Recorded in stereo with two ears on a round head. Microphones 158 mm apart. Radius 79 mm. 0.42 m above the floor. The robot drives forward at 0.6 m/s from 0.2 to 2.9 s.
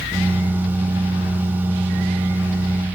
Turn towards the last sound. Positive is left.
No sound to turn to.